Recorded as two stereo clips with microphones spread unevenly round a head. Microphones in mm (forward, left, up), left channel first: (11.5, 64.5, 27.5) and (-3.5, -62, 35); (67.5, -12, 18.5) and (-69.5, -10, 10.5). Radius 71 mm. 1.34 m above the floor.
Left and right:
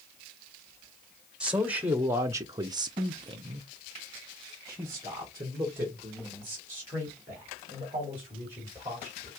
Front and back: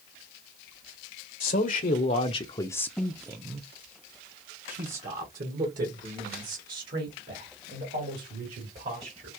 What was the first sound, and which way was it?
A man speaking, 15° right.